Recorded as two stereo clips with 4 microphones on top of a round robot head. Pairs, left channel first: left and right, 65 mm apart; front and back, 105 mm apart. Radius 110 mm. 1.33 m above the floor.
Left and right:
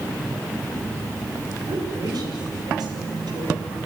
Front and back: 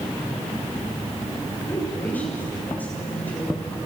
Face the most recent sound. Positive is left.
turn(degrees=-75)